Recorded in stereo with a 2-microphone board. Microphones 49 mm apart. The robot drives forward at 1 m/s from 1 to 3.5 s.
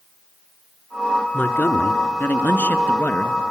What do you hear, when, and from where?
1.3 s a man speaking: 40° left (ahead or behind), 2.5 m; by 3.4 s 35° left (ahead or behind), 2.5 m